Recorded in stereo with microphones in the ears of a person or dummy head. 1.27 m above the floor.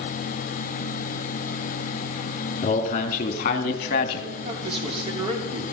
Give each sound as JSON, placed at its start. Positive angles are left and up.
{"t": 2.6, "sound": "a man speaking", "side_deg": 35, "distance_m": 3.0}
{"t": 4.3, "sound": "a man speaking", "side_deg": -30, "distance_m": 3.5}